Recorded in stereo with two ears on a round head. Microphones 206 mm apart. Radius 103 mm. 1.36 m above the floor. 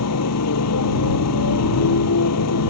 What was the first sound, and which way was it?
A motorcycle, 80° left.